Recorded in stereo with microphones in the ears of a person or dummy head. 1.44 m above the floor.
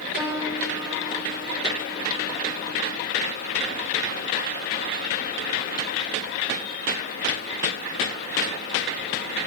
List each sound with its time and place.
0.2 s a piano: 20° right (ahead or behind), 4 m